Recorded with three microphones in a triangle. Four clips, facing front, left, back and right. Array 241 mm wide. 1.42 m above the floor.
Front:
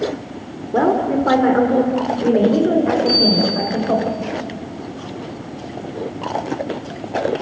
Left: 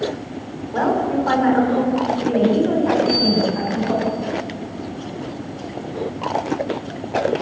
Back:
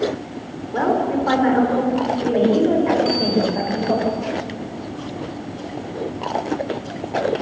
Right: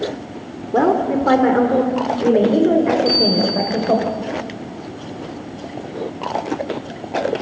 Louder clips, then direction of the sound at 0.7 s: Right 3 dB, front 3 dB; 60° right.